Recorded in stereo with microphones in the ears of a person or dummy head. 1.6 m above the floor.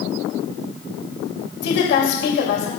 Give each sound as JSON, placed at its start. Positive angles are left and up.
{"t": 1.6, "sound": "a woman speaking", "side_deg": 75, "distance_m": 2.5}